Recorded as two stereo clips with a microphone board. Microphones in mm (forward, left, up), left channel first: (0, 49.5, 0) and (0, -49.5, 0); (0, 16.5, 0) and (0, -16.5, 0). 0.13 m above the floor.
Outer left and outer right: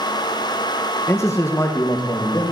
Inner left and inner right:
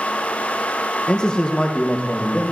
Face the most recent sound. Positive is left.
turn(degrees=50)  # may be behind; listen again after turning